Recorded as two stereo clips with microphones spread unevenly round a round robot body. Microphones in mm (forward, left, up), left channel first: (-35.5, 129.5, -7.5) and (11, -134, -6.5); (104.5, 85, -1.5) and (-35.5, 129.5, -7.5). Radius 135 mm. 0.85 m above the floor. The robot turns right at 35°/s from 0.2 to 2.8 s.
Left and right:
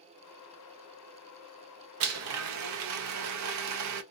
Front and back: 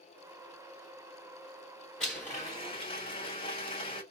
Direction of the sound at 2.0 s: 105° right.